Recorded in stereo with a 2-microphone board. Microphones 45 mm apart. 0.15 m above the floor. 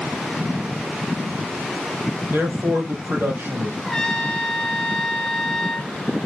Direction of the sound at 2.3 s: 60° right (ahead or behind).